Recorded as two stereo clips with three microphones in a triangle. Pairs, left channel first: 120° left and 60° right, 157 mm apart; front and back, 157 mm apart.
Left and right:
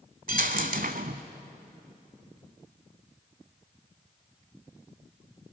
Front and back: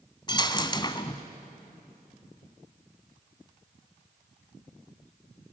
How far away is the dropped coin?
About 1.0 m.